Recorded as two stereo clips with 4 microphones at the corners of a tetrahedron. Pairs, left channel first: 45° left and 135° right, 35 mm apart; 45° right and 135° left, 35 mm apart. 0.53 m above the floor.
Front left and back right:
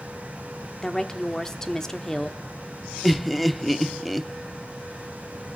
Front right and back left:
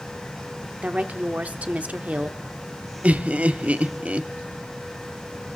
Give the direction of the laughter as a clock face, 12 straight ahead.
7 o'clock.